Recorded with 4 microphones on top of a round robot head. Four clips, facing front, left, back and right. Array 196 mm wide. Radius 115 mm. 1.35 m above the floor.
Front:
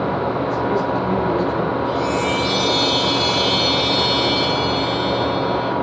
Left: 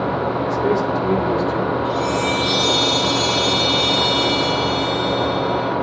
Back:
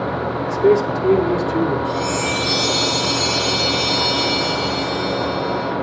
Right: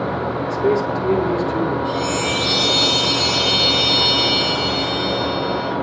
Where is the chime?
155° right, 10 m.